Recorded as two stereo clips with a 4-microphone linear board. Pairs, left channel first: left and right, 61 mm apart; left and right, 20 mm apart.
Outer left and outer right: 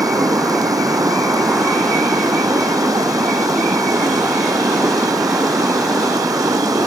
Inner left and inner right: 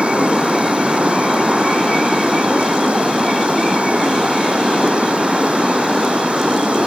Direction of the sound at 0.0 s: 85° right.